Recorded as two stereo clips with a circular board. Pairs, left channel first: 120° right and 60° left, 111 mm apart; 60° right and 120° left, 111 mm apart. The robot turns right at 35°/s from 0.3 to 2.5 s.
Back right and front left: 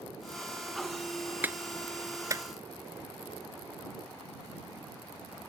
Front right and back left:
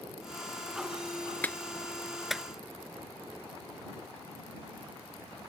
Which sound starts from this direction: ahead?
A clap, at 1.4 s.